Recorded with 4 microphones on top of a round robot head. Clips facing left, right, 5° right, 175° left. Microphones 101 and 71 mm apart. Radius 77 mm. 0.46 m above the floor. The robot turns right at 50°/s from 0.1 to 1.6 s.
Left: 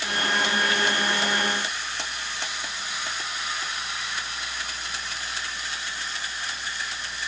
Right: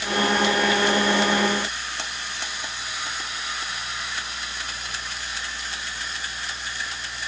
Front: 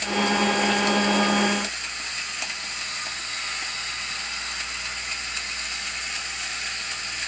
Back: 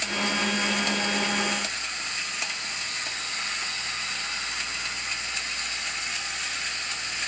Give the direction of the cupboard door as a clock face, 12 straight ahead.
I don't hear a cupboard door.